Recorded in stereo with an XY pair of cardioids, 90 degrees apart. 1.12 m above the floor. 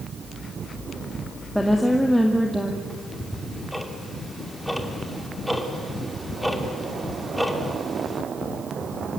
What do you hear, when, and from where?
1.6 s a woman speaking: straight ahead, 2 m
2.9 s ticking: straight ahead, 2.5 m